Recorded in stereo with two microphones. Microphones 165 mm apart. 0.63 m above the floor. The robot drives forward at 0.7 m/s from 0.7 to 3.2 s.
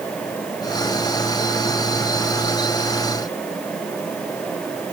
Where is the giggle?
No giggle in this recording.